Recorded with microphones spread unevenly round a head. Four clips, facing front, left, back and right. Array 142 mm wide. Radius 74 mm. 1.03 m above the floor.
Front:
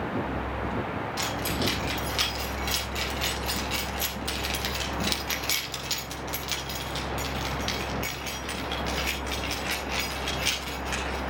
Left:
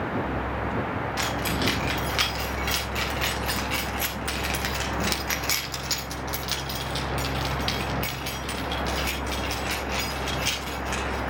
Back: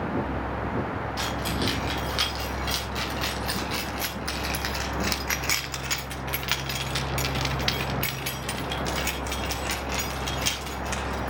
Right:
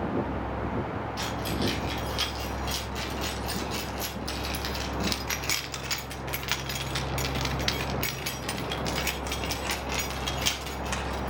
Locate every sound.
1.2 s keys jangling: 115° left, 5.5 m; by 11.3 s 110° right, 4.5 m